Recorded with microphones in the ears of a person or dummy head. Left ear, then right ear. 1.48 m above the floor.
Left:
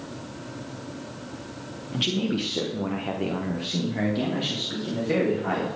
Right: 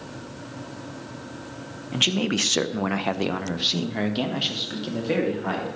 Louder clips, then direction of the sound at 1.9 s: Right 4 dB; 30° right (ahead or behind).